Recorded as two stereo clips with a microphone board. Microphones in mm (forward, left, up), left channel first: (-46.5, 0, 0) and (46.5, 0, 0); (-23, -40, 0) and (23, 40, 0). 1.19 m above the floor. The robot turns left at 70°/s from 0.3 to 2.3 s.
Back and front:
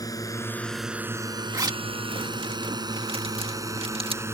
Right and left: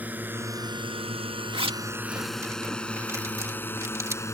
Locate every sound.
0.0 s a drone: 130° left; by 4.3 s 60° right
1.5 s a zipper: 55° left; by 4.2 s straight ahead